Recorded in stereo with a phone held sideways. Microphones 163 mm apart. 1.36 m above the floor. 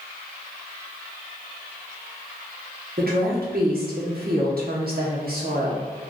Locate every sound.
3.0 s a woman speaking: 70° right (ahead or behind), 1.1 m